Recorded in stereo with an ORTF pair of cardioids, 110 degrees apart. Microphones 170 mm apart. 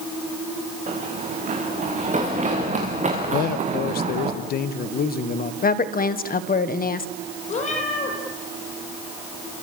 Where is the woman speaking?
60° left, 1.4 m.